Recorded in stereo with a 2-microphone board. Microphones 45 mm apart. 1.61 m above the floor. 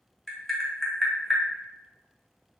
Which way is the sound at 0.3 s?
5° left (ahead or behind).